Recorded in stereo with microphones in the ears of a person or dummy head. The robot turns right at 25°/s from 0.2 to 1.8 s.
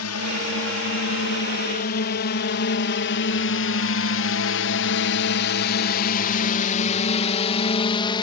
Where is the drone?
70° left (ahead or behind); by 8.2 s 25° left (ahead or behind).